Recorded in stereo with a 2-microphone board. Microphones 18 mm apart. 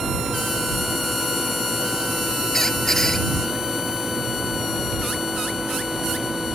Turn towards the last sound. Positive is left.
turn(degrees=20)  # may be behind; listen again after turning